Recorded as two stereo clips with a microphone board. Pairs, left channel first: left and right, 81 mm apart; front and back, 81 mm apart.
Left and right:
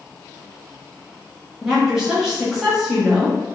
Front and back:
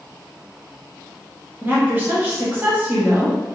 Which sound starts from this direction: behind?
A woman speaking, at 1.6 s.